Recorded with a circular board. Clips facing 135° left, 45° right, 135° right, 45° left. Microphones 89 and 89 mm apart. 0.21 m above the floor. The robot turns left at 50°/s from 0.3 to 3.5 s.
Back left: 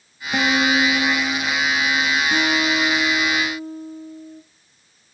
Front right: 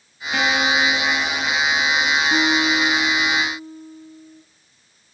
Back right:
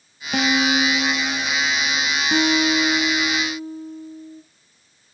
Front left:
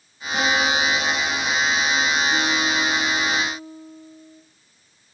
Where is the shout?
No shout in this recording.